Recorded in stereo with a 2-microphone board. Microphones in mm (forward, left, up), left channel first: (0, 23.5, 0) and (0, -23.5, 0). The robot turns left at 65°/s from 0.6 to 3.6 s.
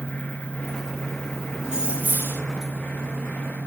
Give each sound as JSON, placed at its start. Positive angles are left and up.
{"t": 1.6, "sound": "keys jangling", "azimuth_deg": -15, "distance_m": 7.5}